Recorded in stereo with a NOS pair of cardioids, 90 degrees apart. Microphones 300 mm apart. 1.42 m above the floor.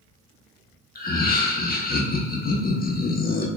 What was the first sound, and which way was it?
Laughter, 30° left.